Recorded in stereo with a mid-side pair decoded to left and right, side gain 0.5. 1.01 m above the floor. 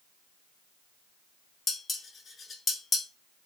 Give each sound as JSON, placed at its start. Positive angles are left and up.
{"t": 1.7, "sound": "dishes clattering", "azimuth_deg": 30, "distance_m": 0.7}